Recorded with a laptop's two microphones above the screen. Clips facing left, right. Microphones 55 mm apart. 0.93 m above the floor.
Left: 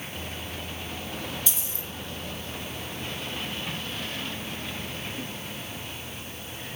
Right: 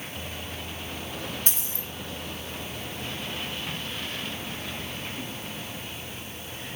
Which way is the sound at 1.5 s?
45° right (ahead or behind).